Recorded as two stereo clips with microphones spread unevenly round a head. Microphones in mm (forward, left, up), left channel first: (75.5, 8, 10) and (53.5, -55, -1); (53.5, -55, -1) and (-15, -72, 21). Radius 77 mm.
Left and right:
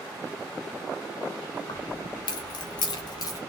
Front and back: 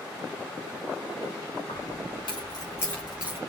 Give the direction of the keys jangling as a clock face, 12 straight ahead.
10 o'clock.